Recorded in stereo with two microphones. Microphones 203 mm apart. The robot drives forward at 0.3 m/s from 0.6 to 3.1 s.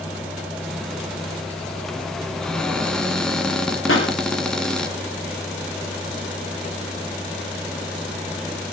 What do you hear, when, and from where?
2.4 s a cupboard door: 5° left (ahead or behind), 1.9 m
3.9 s a pop: 80° left, 5.5 m